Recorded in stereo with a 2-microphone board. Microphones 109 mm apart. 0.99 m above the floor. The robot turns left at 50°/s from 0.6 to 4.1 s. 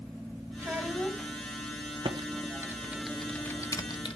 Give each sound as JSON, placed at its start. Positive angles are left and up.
{"t": 0.6, "sound": "a child speaking", "azimuth_deg": -155, "distance_m": 5.0}
{"t": 2.0, "sound": "typing on a keyboard", "side_deg": -55, "distance_m": 1.4}